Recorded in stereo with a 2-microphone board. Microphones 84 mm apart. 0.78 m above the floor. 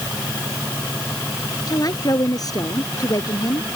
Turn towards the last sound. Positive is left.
turn(degrees=50)  # may be behind; listen again after turning